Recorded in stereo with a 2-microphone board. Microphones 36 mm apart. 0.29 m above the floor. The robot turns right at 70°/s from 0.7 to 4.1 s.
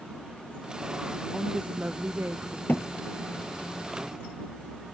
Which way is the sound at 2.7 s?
65° left (ahead or behind).